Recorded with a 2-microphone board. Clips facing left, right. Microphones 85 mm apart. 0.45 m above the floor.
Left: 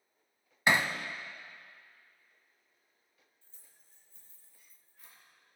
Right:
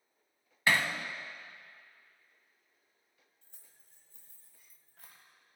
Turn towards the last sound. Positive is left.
turn(degrees=-70)  # may be behind; listen again after turning